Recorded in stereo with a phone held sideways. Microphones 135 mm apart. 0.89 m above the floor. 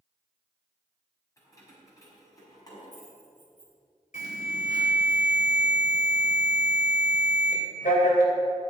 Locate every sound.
1.4 s keys jangling: 25° left (ahead or behind), 4.5 m; by 3.7 s 30° left (ahead or behind), 5.5 m
4.1 s an alarm: 75° left (ahead or behind), 3 m